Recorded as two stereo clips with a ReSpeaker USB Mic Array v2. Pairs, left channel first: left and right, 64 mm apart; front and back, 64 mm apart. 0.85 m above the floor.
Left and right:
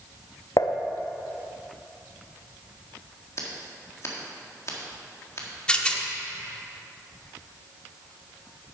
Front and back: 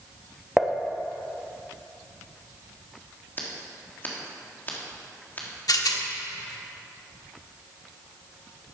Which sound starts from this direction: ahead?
A rattle, at 5.7 s.